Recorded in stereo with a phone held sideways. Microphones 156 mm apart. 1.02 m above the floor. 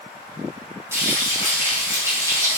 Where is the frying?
20° right (ahead or behind), 4.5 m.